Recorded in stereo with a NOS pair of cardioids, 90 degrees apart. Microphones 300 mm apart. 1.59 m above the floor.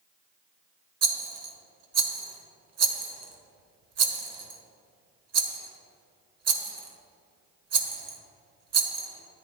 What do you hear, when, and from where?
1.0 s a rattle: 55° right, 1.1 m